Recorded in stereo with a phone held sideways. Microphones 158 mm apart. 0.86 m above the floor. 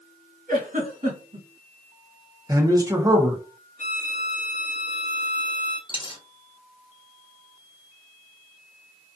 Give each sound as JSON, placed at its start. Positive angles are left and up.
{"t": 0.5, "sound": "a giggle", "side_deg": -55, "distance_m": 1.5}
{"t": 2.5, "sound": "a man speaking", "side_deg": -20, "distance_m": 0.7}
{"t": 3.8, "sound": "a violin", "side_deg": 50, "distance_m": 0.7}
{"t": 5.9, "sound": "a dropped coin", "side_deg": 30, "distance_m": 0.6}